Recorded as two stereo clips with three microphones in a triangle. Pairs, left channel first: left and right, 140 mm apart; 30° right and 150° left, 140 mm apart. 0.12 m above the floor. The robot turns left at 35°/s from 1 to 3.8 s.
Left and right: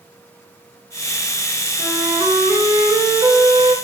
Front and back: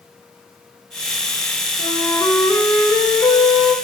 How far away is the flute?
About 1.1 m.